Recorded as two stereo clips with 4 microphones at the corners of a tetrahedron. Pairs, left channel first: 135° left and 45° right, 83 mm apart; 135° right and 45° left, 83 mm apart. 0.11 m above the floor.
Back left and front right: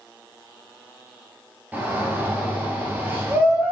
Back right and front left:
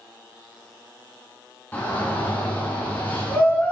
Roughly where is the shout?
Right.